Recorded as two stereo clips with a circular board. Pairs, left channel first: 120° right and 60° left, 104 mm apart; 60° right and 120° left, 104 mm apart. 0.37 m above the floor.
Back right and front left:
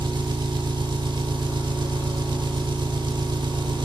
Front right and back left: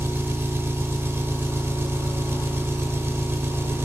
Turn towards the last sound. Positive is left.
turn(degrees=65)